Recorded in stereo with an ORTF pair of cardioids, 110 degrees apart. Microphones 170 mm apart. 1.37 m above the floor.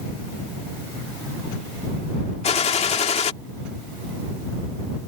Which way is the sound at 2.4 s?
40° left.